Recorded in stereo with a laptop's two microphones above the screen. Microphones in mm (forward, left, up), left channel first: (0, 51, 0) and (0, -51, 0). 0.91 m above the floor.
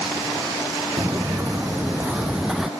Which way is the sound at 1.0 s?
30° right (ahead or behind).